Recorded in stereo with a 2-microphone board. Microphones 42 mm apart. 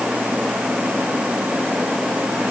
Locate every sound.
Only background noise.